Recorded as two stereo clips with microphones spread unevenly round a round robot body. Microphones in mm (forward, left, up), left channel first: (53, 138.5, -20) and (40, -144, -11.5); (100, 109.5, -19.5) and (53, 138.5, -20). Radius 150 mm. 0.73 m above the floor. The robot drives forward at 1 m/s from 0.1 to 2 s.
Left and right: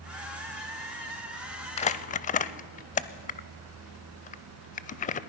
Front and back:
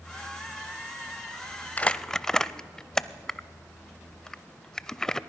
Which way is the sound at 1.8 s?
25° left.